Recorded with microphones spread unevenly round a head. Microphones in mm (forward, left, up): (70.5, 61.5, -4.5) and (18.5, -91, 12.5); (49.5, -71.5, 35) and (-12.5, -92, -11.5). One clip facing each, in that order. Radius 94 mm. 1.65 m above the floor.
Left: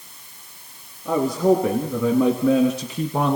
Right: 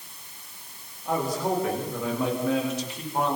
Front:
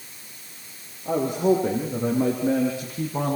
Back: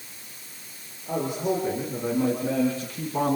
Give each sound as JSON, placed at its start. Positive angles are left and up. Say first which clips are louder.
{"t": 1.1, "sound": "a man speaking", "louder": "left 8 dB, front 6 dB", "azimuth_deg": 75, "distance_m": 4.0}